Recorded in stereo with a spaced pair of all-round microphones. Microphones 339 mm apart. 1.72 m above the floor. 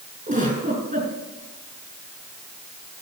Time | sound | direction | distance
0.3 | a giggle | 20° right (ahead or behind) | 5 m